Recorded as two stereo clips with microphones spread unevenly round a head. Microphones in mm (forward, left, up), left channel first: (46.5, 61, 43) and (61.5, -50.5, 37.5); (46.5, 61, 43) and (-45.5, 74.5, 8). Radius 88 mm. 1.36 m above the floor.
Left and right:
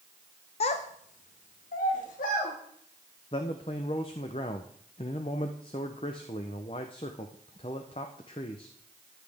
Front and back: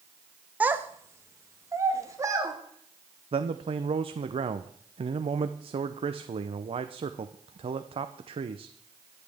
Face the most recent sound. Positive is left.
turn(degrees=155)